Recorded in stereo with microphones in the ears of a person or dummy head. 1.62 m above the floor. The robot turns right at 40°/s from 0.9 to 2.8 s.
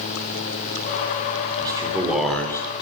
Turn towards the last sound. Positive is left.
turn(degrees=20)